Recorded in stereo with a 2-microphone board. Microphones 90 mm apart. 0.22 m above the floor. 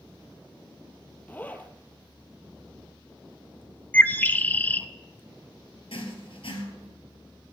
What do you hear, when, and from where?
1.3 s a zipper: 20° left (ahead or behind), 0.9 m
3.9 s a bird: 20° left (ahead or behind), 0.5 m
5.9 s writing: 80° left, 2.5 m